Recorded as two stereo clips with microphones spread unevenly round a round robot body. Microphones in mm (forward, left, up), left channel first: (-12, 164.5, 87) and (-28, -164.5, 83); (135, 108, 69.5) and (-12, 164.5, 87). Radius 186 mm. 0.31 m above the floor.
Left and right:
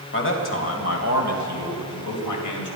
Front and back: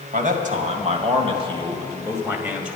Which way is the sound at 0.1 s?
135° left.